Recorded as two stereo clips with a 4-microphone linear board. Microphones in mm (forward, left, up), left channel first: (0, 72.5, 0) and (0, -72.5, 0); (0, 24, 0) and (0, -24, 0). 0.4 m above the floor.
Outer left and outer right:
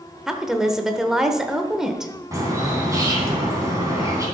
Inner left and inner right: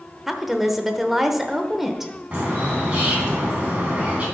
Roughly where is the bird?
Right.